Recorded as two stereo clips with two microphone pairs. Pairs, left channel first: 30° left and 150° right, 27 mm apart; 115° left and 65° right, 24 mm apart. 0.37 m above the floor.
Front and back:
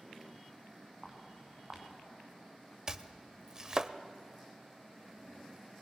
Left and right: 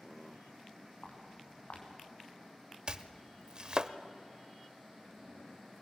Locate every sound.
1.0 s footsteps: 135° left, 4.5 m
2.9 s chopping: 100° right, 0.6 m